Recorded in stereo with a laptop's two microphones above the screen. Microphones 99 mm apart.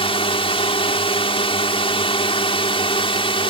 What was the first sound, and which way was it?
A drone, 70° left (ahead or behind).